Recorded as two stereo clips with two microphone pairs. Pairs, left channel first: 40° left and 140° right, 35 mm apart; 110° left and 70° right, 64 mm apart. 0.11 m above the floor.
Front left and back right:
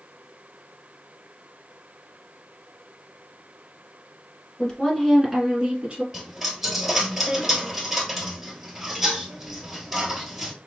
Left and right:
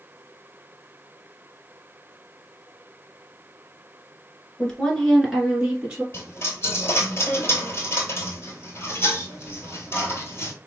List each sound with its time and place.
4.6 s a woman speaking: 45° left, 1.2 m; by 6.0 s 125° right, 1.3 m
6.1 s a dropped coin: 145° left, 1.1 m